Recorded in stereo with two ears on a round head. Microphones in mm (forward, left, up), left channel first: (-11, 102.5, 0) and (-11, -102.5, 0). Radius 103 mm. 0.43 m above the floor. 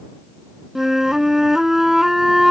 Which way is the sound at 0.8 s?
Centre (ahead or behind).